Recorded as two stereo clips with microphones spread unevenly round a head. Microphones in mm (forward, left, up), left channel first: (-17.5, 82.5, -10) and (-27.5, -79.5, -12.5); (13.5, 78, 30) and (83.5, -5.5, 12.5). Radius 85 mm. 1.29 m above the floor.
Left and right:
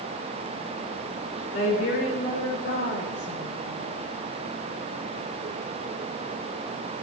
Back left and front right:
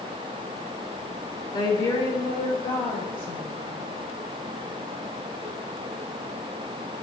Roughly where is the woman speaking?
Left.